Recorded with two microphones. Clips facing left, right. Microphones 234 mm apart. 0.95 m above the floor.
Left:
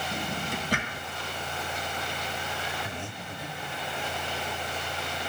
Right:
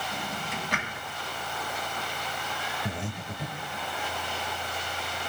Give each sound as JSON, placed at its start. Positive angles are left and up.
{"t": 0.1, "sound": "a drawer", "side_deg": 40, "distance_m": 1.5}
{"t": 2.9, "sound": "breathing", "side_deg": -40, "distance_m": 0.9}